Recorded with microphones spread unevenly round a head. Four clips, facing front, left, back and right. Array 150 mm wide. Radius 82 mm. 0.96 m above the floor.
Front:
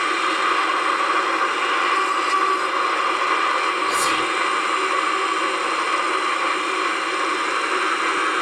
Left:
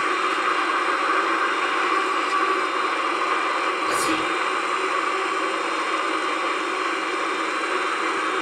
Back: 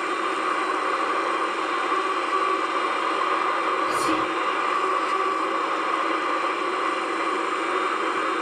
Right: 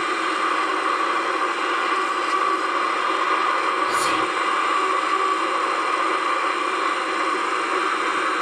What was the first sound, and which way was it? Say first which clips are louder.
Whispering: right 2 dB, front 2 dB; 135° left.